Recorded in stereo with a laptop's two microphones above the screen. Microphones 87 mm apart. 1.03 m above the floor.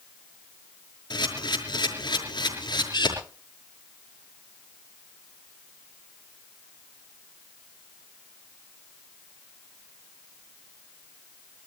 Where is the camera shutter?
60° left (ahead or behind), 5.5 m.